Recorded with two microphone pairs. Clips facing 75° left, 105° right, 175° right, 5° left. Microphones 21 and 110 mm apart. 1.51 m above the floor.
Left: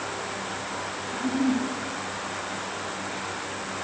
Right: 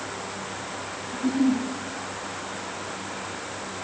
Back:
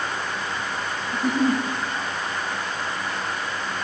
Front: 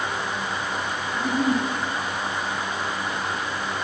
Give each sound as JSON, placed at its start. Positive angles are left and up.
{"t": 1.1, "sound": "a giggle", "azimuth_deg": -135, "distance_m": 5.5}